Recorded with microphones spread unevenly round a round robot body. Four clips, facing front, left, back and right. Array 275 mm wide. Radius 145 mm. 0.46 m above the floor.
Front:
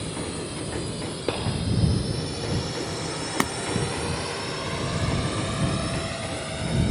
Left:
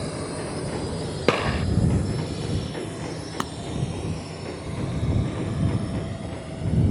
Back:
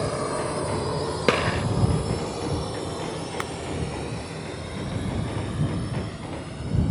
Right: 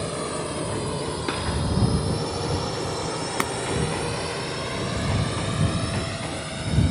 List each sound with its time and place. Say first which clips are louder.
0.0 s a drone: right 2 dB, back 6 dB; 160° right; by 6.9 s 40° right
1.3 s a gunshot: left 10 dB, back 6 dB; 145° left
3.4 s breaking glass: right 4 dB, front 4 dB; 15° left